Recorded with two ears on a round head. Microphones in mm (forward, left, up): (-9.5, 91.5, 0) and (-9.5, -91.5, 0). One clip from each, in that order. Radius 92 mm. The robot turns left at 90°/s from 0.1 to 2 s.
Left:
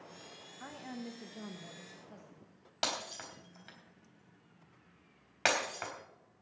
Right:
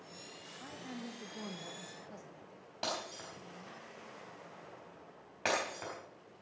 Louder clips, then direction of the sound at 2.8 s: Left 3 dB; 50° left (ahead or behind).